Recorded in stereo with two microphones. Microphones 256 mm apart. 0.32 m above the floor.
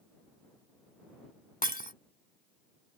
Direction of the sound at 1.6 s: 35° left (ahead or behind).